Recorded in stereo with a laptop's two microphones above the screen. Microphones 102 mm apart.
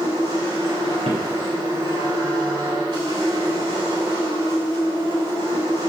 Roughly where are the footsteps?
Right.